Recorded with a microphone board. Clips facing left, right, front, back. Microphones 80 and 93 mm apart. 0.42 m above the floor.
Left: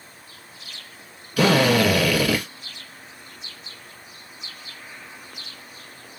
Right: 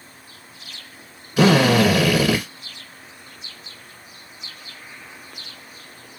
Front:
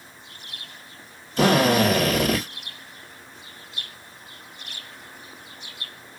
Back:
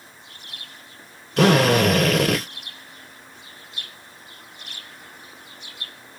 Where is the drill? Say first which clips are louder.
Right 3 dB, back 2 dB; 155° right, 1.9 m.